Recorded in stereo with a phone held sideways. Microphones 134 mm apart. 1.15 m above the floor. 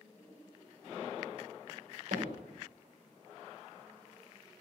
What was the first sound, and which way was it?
Hammering, 75° right (ahead or behind).